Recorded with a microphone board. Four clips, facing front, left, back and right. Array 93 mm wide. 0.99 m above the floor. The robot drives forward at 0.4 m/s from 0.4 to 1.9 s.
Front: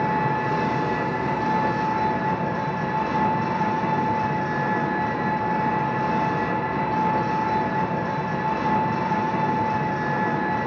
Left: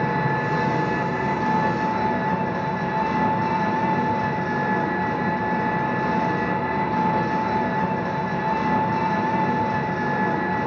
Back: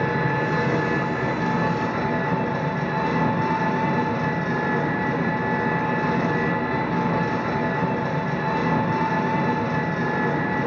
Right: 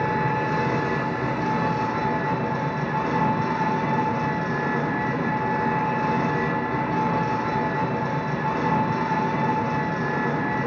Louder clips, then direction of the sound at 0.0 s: Left 1 dB, even; 170° right.